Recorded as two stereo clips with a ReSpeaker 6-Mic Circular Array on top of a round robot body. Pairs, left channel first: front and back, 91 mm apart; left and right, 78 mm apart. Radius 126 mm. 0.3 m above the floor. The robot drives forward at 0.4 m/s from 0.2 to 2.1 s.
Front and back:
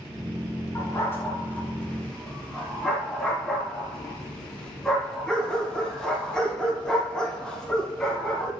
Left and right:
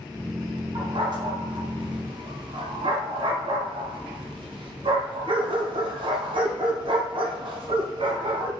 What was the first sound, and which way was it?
A dog barking, 60° right.